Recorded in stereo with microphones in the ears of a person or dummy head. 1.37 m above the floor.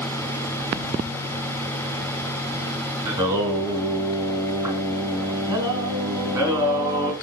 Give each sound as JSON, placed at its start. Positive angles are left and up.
{"t": 3.0, "sound": "singing", "side_deg": -20, "distance_m": 4.5}